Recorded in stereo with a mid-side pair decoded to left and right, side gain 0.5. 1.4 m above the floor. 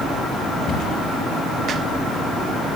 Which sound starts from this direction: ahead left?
A cupboard door, at 0.7 s.